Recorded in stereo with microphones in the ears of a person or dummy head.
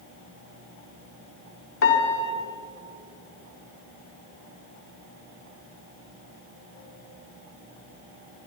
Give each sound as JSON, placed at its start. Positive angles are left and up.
{"t": 1.8, "sound": "a piano", "side_deg": 75, "distance_m": 4.0}